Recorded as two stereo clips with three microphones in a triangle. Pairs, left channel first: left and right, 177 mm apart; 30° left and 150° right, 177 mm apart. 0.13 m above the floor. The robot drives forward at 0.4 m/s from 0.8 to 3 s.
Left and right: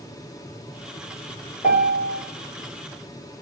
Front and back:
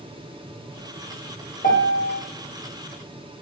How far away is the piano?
About 3 m.